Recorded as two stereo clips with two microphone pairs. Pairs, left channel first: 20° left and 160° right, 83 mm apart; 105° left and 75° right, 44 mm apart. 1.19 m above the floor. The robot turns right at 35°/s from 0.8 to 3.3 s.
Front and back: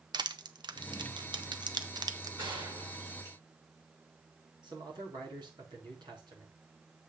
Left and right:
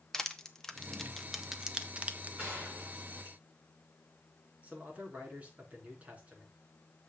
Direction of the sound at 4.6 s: 130° right.